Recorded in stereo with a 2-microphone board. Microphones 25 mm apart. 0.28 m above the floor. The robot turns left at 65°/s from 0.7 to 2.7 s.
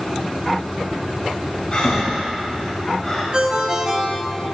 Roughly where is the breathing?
Left.